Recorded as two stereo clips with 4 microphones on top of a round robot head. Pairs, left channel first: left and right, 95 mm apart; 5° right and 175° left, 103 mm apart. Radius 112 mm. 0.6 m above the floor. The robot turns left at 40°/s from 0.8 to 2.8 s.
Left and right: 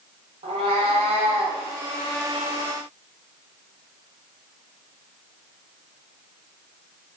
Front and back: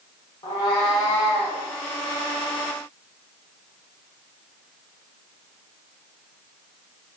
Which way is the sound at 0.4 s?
55° right.